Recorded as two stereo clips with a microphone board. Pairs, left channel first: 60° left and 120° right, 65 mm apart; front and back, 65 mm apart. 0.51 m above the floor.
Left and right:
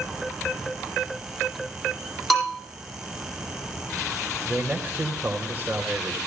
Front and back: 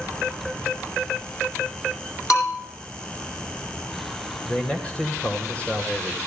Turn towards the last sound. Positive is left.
turn(degrees=-65)